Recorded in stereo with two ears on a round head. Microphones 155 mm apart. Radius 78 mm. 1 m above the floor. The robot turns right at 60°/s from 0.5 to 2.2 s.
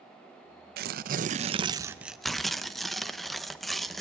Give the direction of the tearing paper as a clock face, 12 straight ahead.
3 o'clock.